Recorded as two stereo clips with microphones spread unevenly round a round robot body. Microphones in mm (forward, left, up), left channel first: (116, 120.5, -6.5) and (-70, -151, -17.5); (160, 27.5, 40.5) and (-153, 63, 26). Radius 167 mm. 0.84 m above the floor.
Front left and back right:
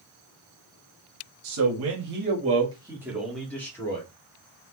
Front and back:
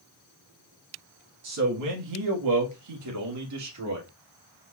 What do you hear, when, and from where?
1.4 s a man speaking: 150° right, 1.4 m; by 4.1 s 135° left, 2.5 m